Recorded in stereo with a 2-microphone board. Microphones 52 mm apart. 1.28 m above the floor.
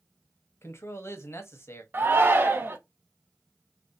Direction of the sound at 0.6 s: 55° left (ahead or behind).